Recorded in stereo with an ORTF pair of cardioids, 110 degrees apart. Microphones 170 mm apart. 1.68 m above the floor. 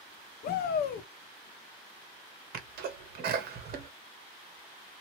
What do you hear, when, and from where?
0.4 s a shout: 60° left, 0.8 m
2.5 s a sneeze: 65° right, 1.1 m